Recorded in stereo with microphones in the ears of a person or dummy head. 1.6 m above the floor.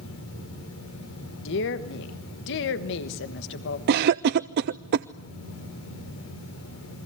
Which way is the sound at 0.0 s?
80° left.